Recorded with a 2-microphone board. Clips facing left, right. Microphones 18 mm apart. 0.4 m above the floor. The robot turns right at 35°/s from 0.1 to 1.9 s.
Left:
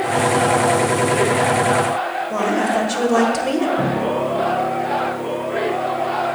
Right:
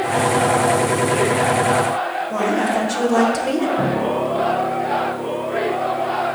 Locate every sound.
2.3 s a woman speaking: 25° left (ahead or behind), 1.6 m
3.8 s a piano: 25° left (ahead or behind), 2.5 m